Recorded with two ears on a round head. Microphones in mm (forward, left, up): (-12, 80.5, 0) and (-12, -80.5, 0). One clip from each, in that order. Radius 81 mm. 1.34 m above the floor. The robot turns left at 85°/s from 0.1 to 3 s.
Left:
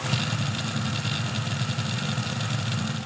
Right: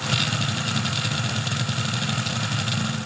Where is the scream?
I don't hear a scream.